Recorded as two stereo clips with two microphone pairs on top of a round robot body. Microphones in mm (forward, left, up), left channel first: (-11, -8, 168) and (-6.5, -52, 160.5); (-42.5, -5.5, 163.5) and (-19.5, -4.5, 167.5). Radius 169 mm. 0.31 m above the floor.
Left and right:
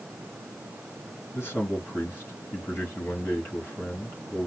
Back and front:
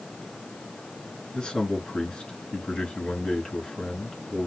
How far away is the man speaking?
About 3 m.